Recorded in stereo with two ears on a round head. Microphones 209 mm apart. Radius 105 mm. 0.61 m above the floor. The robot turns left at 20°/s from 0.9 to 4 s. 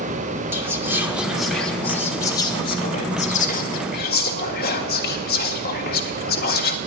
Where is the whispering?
10° right (ahead or behind), 1.3 m; by 6.8 s 45° left (ahead or behind), 1.3 m.